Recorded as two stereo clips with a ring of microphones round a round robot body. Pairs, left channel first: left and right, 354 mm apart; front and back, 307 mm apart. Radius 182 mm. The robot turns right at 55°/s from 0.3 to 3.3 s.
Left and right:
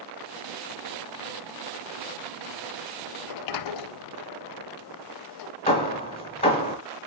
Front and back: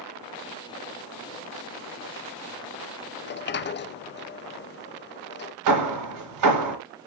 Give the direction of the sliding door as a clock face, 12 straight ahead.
10 o'clock.